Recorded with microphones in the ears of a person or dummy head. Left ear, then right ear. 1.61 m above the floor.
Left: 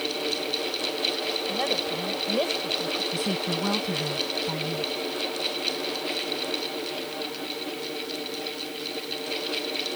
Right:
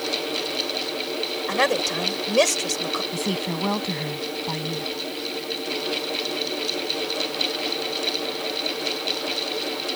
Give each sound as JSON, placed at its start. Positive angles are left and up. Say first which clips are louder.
{"t": 1.5, "sound": "a woman speaking", "louder": "right 9 dB", "side_deg": -50}
{"t": 3.1, "sound": "a woman speaking", "louder": "right 1 dB", "side_deg": -5}